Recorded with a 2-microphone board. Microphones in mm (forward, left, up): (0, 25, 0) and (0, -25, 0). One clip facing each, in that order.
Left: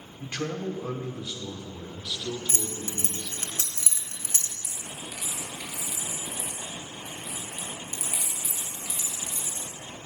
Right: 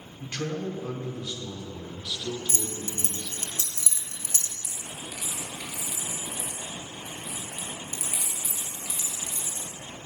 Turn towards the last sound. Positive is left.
turn(degrees=0)  # may be behind; listen again after turning